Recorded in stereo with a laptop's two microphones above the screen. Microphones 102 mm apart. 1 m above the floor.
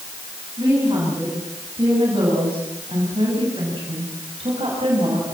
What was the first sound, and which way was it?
A woman speaking, 45° right (ahead or behind).